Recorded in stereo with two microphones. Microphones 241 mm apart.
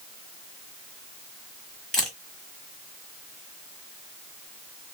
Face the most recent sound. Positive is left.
turn(degrees=0)  # may be behind; listen again after turning